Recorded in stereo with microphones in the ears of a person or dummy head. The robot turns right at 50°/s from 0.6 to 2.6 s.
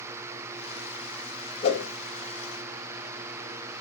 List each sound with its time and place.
1.6 s a whoosh: 35° left (ahead or behind), 0.9 m; by 1.9 s 50° left (ahead or behind), 0.9 m